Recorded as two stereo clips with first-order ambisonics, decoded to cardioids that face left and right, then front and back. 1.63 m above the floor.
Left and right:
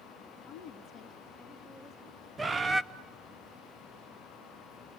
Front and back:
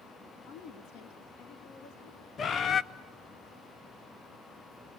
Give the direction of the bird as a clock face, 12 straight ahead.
1 o'clock.